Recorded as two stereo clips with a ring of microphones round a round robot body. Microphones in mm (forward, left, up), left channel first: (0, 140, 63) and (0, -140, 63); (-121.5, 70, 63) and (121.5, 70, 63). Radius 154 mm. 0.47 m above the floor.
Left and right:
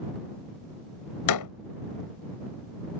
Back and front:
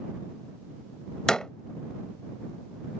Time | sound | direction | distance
1.3 | a door slam | 95° left | ?